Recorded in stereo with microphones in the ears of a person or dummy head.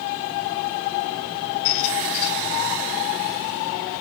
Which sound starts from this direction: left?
A squeak, at 1.6 s.